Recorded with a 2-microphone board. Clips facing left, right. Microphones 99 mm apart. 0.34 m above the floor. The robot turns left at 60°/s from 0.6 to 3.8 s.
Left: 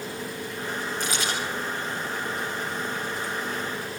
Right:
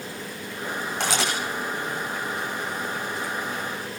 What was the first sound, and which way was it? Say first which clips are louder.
A camera shutter: right 5 dB; 60° right (ahead or behind).